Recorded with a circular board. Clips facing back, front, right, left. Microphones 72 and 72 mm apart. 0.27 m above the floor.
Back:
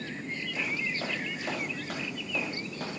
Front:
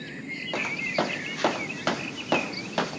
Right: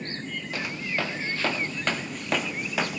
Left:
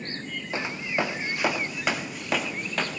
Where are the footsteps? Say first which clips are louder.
Front 7 dB, left 3 dB; 25° left, 3.5 m; by 3.0 s 10° right, 2.5 m.